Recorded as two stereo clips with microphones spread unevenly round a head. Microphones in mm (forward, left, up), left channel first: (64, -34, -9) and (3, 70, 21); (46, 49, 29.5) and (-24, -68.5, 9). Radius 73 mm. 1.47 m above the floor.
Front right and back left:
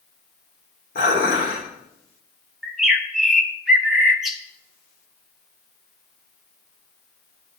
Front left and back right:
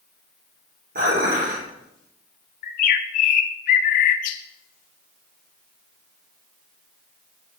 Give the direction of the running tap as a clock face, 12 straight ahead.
I don't hear a running tap.